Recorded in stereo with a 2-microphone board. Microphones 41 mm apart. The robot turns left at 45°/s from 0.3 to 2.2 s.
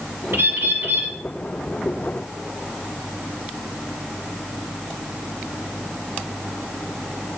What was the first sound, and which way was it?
A bird, 90° right.